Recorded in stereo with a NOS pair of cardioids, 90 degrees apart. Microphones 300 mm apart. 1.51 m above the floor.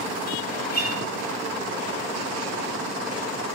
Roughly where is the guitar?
Ahead left.